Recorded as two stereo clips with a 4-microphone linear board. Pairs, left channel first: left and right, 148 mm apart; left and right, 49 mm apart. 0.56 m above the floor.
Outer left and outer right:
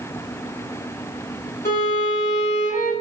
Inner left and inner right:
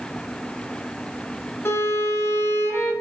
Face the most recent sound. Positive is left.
turn(degrees=70)  # may be behind; listen again after turning